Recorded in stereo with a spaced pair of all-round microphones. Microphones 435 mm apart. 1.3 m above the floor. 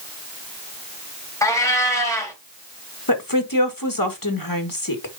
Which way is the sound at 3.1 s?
50° left (ahead or behind).